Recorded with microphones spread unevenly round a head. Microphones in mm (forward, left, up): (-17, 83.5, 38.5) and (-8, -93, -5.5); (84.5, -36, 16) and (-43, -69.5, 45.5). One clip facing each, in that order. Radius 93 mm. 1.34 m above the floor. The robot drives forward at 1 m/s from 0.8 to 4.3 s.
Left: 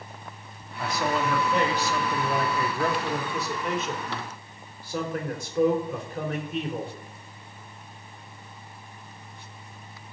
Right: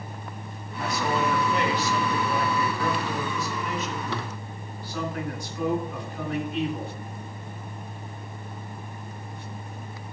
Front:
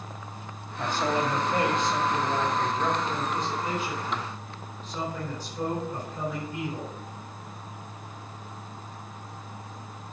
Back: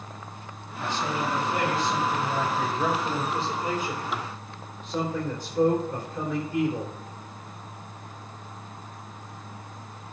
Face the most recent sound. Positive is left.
turn(degrees=140)